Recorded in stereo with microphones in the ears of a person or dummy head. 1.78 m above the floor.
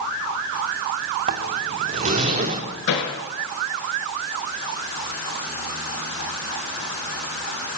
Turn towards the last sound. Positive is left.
turn(degrees=65)  # may be behind; listen again after turning